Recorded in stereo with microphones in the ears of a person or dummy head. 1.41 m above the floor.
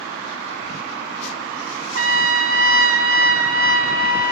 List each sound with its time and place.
1.9 s a trumpet: 65° right (ahead or behind), 1.0 m